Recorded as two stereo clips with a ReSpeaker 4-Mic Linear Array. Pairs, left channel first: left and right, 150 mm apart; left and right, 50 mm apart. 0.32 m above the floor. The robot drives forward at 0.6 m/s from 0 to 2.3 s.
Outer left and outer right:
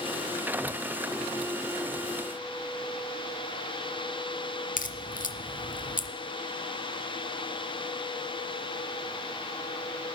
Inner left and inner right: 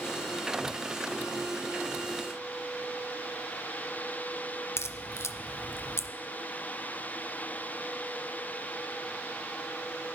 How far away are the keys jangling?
No keys jangling in this recording.